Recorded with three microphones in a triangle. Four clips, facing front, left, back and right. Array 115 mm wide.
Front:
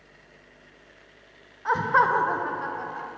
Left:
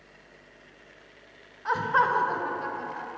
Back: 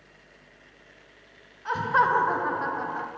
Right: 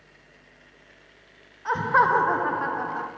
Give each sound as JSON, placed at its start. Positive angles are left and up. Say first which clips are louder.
{"t": 1.6, "sound": "laughter", "louder": "right 3 dB, front 2 dB", "azimuth_deg": -10, "distance_m": 0.5}